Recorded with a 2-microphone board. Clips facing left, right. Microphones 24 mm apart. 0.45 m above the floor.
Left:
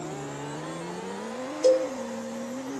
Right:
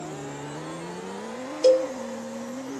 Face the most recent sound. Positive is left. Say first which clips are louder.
# right 2 dB
turn(degrees=-35)  # may be behind; listen again after turning